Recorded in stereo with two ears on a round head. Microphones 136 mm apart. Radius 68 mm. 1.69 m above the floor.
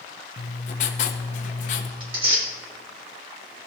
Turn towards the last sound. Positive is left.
turn(degrees=-40)  # may be behind; listen again after turning